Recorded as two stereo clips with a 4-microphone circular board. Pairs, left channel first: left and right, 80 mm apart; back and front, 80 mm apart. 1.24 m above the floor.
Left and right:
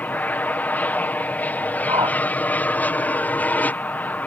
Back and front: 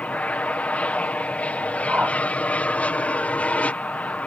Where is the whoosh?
75° right.